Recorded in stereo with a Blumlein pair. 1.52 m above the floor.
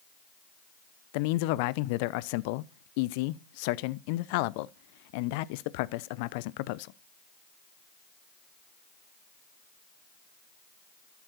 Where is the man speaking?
45° left, 0.7 m.